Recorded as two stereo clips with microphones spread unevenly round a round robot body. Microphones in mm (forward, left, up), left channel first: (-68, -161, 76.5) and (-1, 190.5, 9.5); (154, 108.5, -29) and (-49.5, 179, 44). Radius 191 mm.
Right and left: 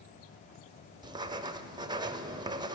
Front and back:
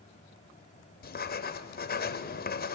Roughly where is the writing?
Ahead.